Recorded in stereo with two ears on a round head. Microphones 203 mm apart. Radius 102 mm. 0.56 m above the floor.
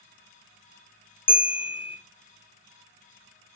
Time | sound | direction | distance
1.3 | a bell | 25° left (ahead or behind) | 0.6 m